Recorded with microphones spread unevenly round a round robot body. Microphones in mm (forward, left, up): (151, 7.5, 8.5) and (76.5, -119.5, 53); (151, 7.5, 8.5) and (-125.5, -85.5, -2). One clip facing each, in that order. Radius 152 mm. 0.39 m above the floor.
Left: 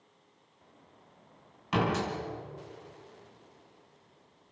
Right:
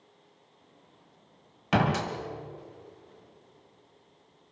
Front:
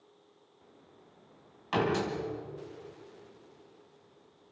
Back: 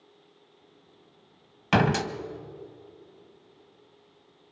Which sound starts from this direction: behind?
A door slam, at 1.7 s.